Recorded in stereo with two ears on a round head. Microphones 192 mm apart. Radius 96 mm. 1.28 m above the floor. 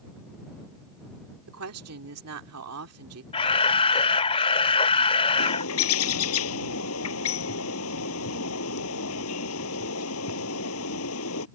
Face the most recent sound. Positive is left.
turn(degrees=75)  # may be behind; listen again after turning